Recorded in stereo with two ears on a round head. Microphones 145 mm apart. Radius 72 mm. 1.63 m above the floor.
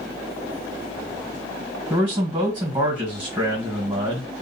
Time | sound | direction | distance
1.9 | a man speaking | 15° right (ahead or behind) | 1.8 m